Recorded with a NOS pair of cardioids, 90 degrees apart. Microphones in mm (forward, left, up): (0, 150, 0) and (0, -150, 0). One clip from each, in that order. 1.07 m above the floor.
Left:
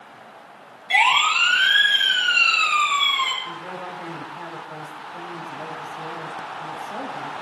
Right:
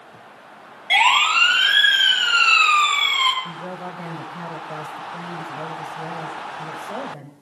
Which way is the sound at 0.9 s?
40° right.